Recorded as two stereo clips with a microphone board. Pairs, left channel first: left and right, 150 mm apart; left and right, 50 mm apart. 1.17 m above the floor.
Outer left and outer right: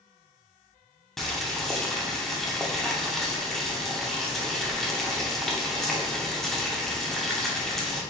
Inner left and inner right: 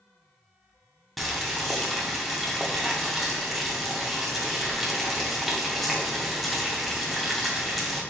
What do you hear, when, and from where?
1.2 s boiling: centre (ahead or behind), 0.6 m